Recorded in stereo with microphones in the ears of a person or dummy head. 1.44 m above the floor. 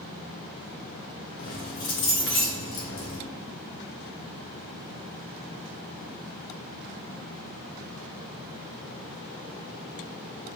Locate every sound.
1.4 s keys jangling: 55° left (ahead or behind), 1.1 m